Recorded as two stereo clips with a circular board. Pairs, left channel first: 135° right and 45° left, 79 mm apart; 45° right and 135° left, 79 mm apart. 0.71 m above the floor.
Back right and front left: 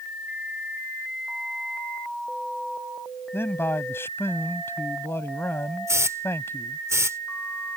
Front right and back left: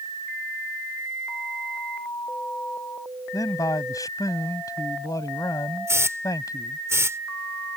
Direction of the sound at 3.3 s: 80° right.